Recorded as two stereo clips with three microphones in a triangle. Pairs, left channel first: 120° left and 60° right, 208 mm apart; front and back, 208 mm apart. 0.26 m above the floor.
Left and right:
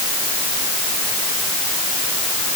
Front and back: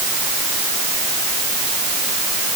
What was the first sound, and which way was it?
Only background noise.